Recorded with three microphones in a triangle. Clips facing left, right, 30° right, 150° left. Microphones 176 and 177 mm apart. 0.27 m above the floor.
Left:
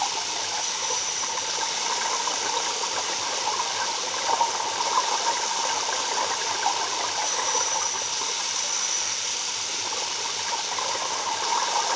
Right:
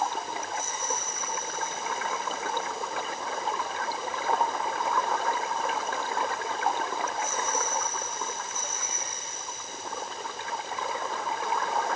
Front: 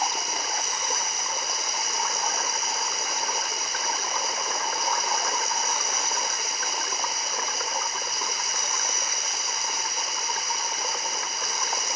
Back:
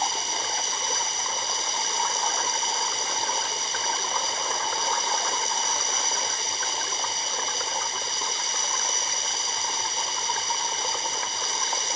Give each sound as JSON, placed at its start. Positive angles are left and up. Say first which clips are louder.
{"t": 0.0, "sound": "running water", "louder": "right 1 dB, even", "azimuth_deg": 90}